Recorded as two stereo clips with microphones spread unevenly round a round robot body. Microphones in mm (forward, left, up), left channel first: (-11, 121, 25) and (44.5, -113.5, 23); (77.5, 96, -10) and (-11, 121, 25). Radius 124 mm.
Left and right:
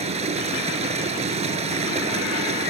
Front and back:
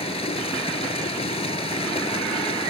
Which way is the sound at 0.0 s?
10° right.